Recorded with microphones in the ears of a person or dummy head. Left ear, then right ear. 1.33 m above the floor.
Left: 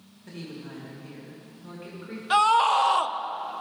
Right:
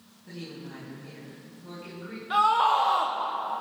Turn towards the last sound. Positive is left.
turn(degrees=70)  # may be behind; listen again after turning